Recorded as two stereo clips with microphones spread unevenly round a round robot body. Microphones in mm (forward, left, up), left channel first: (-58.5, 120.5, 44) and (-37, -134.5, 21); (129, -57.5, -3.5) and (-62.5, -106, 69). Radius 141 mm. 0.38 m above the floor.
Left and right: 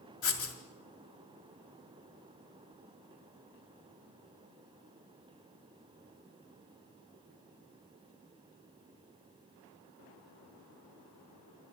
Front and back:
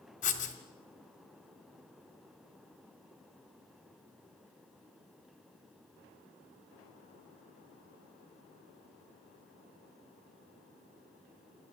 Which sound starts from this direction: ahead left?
Writing, at 0.2 s.